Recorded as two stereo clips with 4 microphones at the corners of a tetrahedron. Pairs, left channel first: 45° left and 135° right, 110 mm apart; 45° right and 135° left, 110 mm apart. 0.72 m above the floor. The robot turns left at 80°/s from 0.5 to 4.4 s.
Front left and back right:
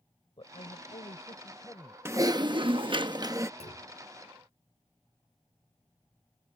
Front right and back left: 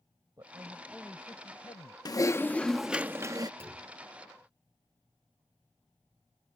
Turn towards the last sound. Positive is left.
turn(degrees=5)